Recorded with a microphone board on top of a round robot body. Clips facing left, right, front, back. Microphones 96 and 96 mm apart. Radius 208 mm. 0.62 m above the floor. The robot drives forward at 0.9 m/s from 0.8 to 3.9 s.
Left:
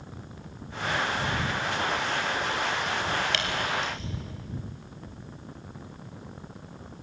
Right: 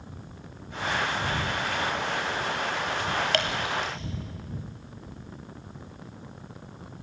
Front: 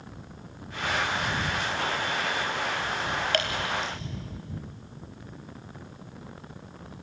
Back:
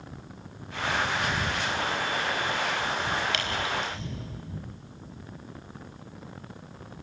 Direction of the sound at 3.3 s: 50° right.